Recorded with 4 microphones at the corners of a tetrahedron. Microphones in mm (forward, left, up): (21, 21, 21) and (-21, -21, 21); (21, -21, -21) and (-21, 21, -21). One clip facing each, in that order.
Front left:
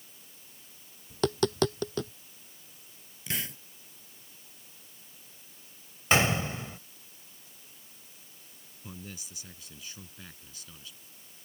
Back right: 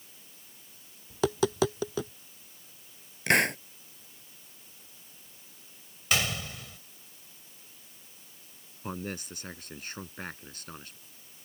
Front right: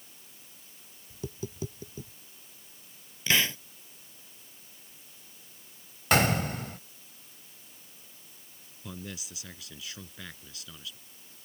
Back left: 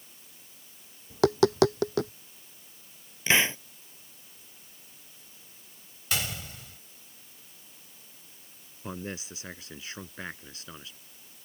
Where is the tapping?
140° left.